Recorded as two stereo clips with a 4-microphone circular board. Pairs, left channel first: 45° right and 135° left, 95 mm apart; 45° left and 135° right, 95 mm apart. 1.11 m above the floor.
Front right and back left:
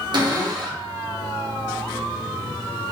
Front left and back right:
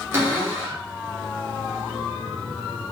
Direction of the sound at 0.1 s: 165° left.